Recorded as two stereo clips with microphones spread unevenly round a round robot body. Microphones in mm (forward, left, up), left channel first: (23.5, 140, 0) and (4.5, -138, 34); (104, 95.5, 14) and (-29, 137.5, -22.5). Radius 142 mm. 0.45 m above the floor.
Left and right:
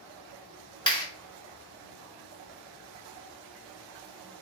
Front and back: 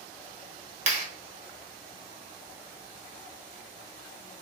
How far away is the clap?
About 1.1 m.